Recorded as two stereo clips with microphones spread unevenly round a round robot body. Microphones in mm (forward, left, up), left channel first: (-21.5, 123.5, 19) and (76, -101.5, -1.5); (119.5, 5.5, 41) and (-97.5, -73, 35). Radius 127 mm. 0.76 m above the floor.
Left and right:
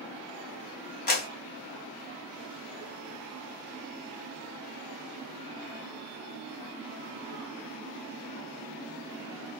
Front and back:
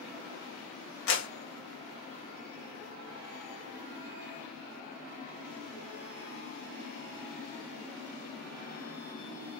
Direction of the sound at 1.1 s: 60° left.